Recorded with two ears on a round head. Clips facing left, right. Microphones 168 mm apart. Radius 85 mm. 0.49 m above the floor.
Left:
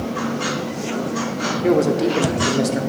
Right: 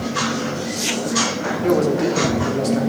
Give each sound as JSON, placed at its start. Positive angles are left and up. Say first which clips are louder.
{"t": 1.6, "sound": "a man speaking", "louder": "left 1 dB", "side_deg": 10, "distance_m": 1.1}